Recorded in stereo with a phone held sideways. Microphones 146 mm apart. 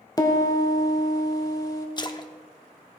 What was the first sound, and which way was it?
A piano, 25° left (ahead or behind).